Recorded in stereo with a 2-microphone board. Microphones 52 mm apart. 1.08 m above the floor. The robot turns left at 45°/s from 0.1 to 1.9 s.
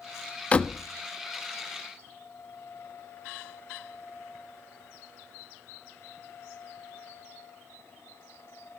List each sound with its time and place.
0.5 s a door slam: 30° left (ahead or behind), 1.0 m; by 0.8 s 15° left (ahead or behind), 1.0 m